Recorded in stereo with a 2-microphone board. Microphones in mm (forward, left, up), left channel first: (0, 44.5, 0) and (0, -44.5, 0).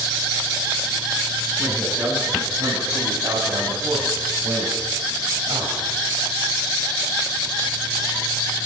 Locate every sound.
1.6 s a man speaking: 35° right (ahead or behind), 9 m; by 5.8 s 65° right (ahead or behind), 5.5 m